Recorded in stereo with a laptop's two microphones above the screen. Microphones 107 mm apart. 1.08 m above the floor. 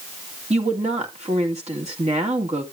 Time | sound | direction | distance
0.5 | a woman speaking | 80° right | 2 m